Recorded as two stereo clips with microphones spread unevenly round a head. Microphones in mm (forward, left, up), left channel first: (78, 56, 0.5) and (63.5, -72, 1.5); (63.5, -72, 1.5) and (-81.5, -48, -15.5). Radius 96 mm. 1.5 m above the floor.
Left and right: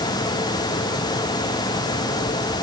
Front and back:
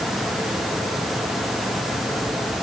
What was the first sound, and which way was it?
Only background noise.